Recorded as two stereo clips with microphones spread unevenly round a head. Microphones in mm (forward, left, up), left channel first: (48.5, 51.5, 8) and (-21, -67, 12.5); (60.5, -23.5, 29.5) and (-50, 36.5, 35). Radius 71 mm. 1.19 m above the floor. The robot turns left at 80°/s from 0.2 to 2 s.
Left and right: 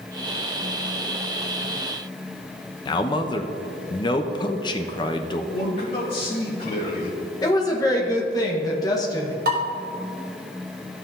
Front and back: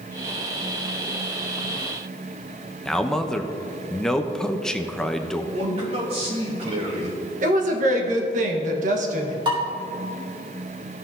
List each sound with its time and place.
2.9 s a man speaking: 50° left, 0.7 m
5.5 s a man speaking: 110° left, 2.5 m
7.4 s a woman speaking: 125° left, 1.3 m
9.4 s dishes clattering: 150° right, 1.9 m